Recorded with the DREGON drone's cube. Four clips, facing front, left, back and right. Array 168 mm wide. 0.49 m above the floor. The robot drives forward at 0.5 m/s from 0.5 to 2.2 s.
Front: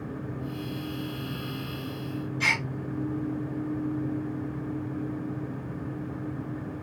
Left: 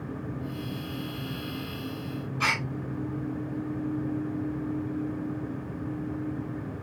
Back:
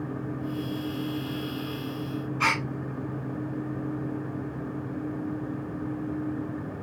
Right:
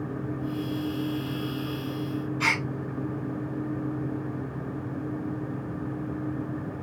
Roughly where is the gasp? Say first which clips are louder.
Left 1 dB, back 4 dB; behind.